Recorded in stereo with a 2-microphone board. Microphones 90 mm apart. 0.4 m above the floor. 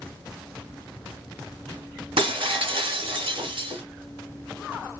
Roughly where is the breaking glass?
Right.